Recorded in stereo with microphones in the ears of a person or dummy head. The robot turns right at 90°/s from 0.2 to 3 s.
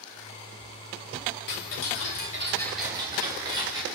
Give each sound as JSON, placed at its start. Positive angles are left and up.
{"t": 1.5, "sound": "ticking", "azimuth_deg": 60, "distance_m": 3.0}